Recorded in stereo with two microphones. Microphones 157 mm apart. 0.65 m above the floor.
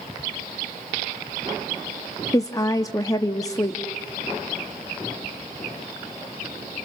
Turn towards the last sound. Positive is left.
turn(degrees=20)  # may be behind; listen again after turning